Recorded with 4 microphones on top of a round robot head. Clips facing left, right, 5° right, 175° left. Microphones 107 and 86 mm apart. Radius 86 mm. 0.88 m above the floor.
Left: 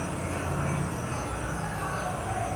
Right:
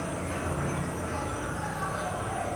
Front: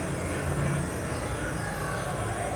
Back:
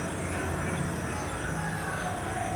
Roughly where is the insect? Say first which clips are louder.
Even, front 1 dB; ahead.